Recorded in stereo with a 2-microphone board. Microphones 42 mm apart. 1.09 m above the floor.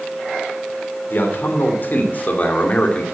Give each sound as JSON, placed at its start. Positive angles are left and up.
{"t": 1.1, "sound": "a man speaking", "side_deg": 60, "distance_m": 3.0}